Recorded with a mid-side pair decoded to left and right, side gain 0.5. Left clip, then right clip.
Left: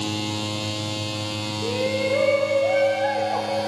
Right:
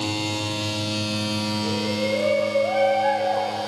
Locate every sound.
1.6 s a shout: 65° left, 8 m